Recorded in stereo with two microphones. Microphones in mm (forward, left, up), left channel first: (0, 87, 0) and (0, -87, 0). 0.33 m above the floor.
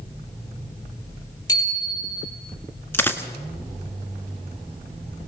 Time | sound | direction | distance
1.5 | a bicycle bell | 20° left (ahead or behind) | 6.5 m
2.9 | a dropped coin | 10° left (ahead or behind) | 1.6 m